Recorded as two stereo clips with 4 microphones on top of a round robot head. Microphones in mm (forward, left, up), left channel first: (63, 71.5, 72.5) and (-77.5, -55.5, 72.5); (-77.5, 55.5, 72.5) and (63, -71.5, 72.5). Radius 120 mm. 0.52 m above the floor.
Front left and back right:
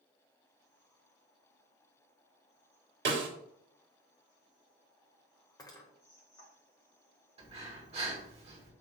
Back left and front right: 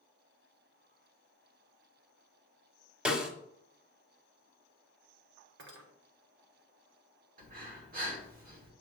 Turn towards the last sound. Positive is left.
turn(degrees=-80)